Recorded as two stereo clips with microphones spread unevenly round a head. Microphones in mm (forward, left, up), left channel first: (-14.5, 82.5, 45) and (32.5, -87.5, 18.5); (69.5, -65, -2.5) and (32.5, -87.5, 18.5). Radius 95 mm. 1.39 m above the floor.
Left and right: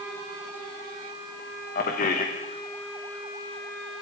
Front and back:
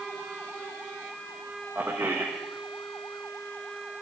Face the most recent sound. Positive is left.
turn(degrees=150)